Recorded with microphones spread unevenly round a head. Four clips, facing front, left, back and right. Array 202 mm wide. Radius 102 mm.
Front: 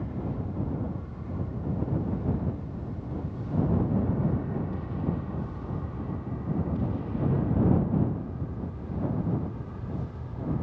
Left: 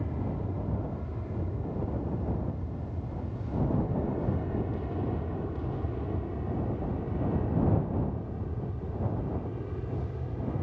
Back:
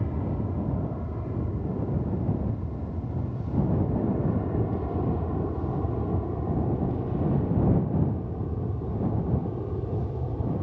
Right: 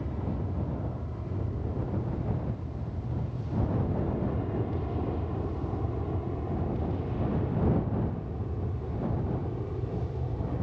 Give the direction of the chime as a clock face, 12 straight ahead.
I don't hear a chime.